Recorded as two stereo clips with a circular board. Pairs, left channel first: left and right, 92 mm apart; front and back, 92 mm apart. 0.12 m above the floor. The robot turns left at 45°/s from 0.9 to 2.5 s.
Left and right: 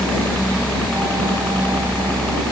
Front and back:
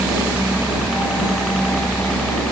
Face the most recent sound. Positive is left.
turn(degrees=55)